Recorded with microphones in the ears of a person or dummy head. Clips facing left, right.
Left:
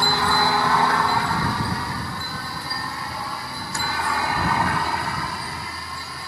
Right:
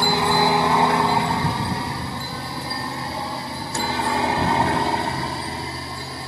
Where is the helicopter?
15° right (ahead or behind); by 6.3 s 25° right (ahead or behind).